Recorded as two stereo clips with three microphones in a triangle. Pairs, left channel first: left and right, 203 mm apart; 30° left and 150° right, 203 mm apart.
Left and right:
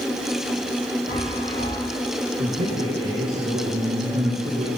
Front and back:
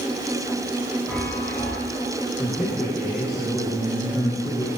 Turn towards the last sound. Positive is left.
turn(degrees=-55)